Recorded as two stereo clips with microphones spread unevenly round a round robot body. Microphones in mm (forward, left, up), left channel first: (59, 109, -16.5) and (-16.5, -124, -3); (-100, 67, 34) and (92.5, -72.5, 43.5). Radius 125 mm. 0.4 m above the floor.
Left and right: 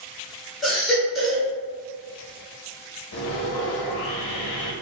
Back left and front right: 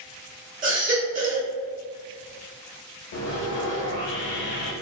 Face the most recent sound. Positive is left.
turn(degrees=110)